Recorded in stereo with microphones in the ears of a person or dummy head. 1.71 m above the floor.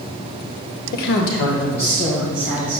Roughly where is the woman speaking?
Left.